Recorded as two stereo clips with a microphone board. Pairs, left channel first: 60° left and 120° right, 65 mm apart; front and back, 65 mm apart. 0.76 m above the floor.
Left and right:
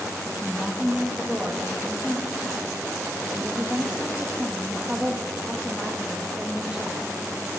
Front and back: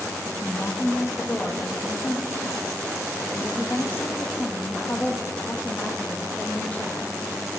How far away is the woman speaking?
About 0.9 m.